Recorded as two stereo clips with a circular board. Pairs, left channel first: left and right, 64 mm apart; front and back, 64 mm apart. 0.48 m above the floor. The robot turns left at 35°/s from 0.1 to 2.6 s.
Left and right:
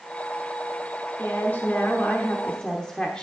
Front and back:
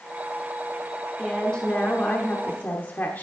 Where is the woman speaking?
75° left, 1.1 m; by 3.2 s 25° left, 1.1 m.